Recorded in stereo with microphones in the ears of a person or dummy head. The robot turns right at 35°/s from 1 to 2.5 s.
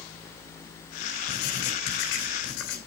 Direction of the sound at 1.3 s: 60° left.